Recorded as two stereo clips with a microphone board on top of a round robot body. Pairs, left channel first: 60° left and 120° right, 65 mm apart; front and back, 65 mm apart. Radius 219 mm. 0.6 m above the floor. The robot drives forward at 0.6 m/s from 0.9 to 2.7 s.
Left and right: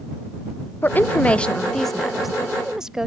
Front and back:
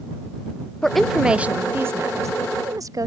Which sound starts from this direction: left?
A woman speaking, at 0.8 s.